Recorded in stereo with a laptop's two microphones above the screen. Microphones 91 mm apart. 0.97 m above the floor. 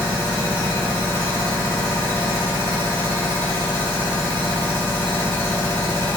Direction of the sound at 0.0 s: 30° left (ahead or behind).